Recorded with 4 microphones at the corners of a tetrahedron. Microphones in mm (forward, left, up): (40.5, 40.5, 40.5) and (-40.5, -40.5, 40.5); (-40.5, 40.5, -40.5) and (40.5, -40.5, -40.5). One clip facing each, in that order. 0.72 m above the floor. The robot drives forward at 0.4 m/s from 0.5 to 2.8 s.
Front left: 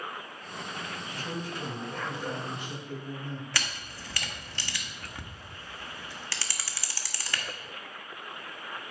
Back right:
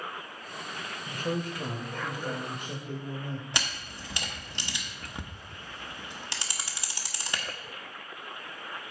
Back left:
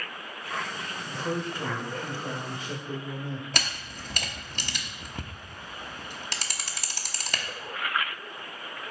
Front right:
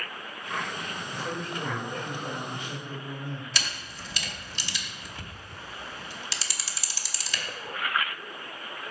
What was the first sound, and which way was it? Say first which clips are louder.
A man speaking: back right 7 dB, back left 5 dB; 165° right.